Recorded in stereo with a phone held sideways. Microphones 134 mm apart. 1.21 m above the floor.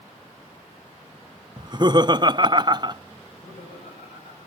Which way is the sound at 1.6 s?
35° right (ahead or behind).